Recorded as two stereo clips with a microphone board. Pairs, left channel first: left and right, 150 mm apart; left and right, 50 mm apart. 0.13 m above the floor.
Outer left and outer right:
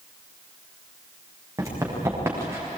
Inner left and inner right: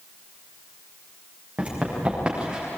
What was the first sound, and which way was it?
Running footsteps, 20° right (ahead or behind).